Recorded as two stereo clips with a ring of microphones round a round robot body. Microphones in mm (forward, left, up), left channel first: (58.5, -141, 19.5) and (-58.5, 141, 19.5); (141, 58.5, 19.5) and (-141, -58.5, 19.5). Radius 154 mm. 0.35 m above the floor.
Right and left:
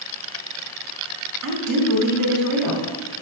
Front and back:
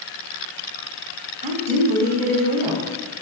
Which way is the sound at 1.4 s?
135° left.